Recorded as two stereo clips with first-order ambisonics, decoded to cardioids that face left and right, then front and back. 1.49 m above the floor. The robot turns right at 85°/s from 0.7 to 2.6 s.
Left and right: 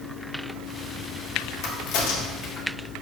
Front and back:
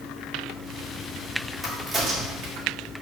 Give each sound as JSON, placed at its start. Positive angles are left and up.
{"t": 1.6, "sound": "a crack", "azimuth_deg": 80, "distance_m": 0.8}